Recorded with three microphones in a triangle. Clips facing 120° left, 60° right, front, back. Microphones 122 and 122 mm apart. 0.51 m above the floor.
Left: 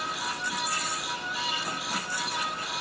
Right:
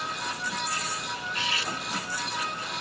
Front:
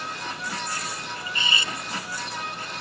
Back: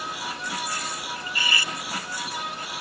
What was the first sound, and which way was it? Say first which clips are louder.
Cutlery clinking: right 2 dB, even; 70° right.